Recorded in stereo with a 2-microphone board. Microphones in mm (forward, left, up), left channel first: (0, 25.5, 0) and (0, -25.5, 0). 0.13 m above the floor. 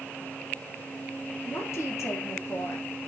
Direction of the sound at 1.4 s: 60° left (ahead or behind).